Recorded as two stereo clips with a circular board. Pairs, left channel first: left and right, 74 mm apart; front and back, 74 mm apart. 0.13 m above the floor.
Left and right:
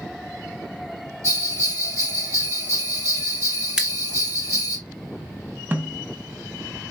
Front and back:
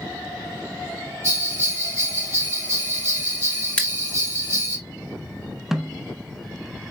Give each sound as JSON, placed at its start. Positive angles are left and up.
{"t": 1.2, "sound": "a bell", "azimuth_deg": -130, "distance_m": 4.0}
{"t": 3.8, "sound": "scissors", "azimuth_deg": -35, "distance_m": 1.1}
{"t": 5.7, "sound": "a snare drum", "azimuth_deg": -100, "distance_m": 0.7}